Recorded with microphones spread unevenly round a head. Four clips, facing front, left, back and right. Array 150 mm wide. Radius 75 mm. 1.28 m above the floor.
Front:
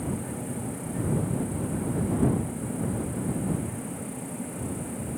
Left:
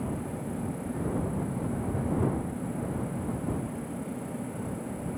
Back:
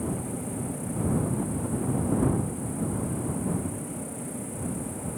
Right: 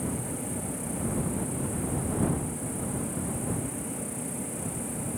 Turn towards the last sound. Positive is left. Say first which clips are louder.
# even, back 1 dB
turn(degrees=-105)